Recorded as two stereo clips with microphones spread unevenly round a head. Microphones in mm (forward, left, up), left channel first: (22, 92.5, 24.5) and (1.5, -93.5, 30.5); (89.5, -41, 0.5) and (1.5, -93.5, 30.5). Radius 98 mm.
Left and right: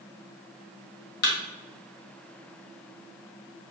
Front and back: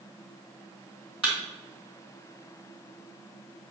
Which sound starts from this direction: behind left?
A thud, at 1.2 s.